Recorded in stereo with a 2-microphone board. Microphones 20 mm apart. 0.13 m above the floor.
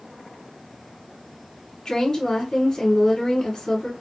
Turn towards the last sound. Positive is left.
turn(degrees=20)  # may be behind; listen again after turning